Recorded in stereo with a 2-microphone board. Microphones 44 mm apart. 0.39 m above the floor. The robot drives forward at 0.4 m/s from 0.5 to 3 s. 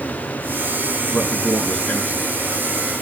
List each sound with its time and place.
1.1 s a man speaking: 25° left (ahead or behind), 6 m